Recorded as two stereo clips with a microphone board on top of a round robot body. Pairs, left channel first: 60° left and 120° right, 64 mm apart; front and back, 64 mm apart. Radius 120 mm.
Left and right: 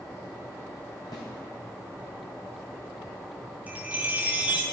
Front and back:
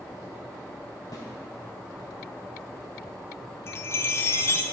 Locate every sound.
1.1 s a snare drum: 35° left, 2.5 m
3.7 s a chime: 50° right, 0.6 m